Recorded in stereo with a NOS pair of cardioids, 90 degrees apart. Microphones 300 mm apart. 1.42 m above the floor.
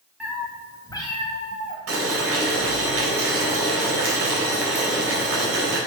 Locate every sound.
0.2 s a cat meowing: straight ahead, 3.5 m; by 1.8 s 30° left, 3.5 m
1.9 s boiling: 55° right, 4 m